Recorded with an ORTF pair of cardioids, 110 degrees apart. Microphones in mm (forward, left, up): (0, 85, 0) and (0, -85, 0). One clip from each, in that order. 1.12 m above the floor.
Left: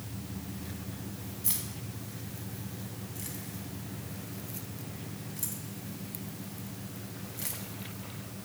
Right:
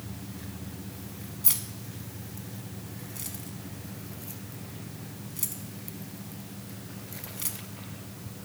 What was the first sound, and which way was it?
Keys jangling, 25° right.